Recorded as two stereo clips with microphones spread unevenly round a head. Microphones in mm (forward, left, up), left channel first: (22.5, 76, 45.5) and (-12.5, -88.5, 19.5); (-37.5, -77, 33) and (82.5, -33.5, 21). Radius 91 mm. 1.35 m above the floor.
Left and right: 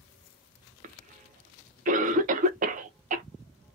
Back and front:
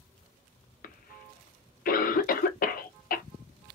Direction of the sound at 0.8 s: 150° right.